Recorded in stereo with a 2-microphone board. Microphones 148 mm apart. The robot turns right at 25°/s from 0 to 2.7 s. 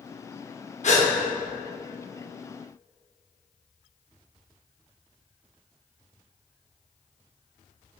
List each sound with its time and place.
0.8 s a gasp: 55° left (ahead or behind), 0.5 m; by 1.1 s 50° left (ahead or behind), 0.5 m